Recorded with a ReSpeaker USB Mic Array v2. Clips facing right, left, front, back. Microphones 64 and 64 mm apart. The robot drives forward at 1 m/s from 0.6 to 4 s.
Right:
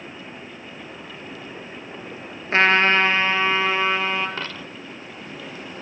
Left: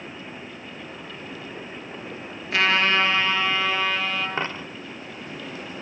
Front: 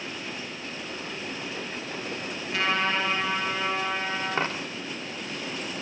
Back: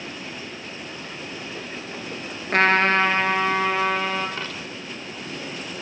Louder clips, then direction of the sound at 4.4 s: Left 3 dB, front 4 dB; 35° left.